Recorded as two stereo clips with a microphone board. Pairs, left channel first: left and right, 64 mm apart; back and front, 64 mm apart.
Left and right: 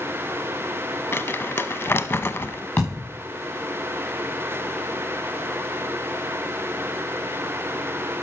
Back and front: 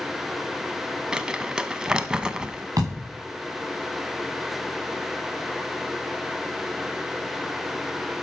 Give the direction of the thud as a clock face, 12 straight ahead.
11 o'clock.